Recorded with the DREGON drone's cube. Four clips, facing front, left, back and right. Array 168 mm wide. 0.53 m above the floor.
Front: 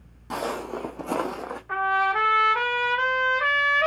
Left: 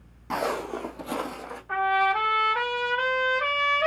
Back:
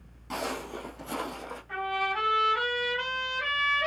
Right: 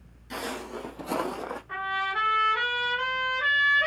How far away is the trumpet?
About 3 m.